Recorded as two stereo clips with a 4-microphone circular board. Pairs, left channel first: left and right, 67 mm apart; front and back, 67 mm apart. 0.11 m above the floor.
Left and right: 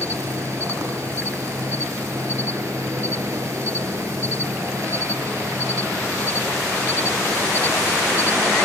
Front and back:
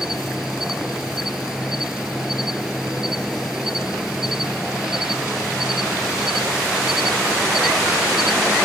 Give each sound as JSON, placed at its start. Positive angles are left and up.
{"t": 0.0, "sound": "an insect", "azimuth_deg": -100}